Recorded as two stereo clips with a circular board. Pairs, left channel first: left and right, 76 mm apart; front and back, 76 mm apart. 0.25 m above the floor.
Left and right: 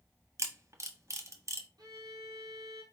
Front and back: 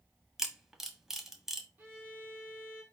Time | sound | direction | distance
0.4 | a camera shutter | 95° right | 0.8 m
1.8 | a violin | 115° right | 1.8 m